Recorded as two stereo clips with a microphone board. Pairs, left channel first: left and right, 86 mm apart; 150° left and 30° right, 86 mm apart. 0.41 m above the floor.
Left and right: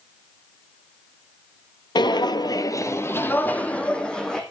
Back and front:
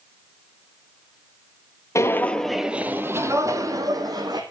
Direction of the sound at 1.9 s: 100° left.